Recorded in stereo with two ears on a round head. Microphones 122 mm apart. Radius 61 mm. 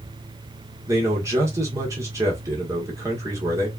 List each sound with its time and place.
0.9 s a man speaking: 20° right (ahead or behind), 1.5 m